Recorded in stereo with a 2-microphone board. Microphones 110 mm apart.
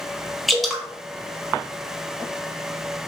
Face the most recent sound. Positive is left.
turn(degrees=0)  # may be behind; listen again after turning